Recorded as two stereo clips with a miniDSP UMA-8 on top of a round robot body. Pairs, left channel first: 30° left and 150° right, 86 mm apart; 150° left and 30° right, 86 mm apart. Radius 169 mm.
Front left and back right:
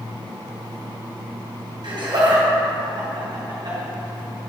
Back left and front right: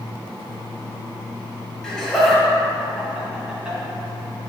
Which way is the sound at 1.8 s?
125° right.